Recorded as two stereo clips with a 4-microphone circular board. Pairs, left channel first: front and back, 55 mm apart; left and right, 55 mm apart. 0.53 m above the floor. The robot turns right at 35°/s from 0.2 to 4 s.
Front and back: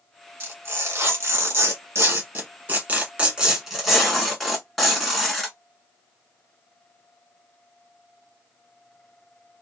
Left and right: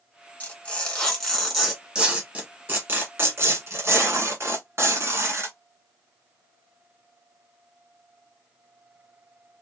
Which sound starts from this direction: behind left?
Tearing paper, at 0.4 s.